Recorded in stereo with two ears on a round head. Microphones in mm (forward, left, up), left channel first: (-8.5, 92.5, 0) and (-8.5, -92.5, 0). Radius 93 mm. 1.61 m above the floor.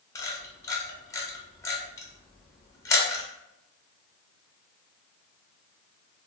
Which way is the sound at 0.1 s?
15° left (ahead or behind).